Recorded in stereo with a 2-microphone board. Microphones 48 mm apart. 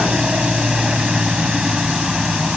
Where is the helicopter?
15° right (ahead or behind).